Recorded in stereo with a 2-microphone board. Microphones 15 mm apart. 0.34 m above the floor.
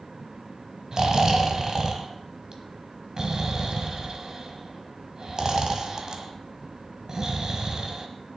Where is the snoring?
45° right (ahead or behind), 1.5 m.